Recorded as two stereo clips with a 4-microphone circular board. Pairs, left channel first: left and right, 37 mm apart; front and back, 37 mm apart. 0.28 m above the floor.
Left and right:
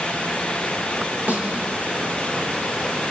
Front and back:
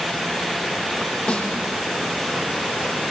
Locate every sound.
1.3 s a snare drum: 40° right, 5.5 m